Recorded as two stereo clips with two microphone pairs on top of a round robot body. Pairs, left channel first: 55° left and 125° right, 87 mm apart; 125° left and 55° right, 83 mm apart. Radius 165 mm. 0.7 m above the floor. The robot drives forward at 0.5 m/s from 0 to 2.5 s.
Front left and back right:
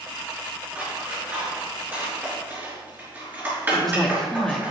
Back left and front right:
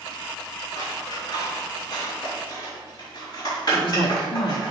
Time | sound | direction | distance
0.8 | scissors | 165° left | 4.5 m
3.7 | a woman speaking | 140° left | 2 m